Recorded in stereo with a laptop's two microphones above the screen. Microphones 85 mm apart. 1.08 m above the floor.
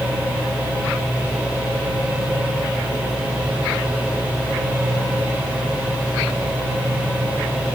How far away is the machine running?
About 3 m.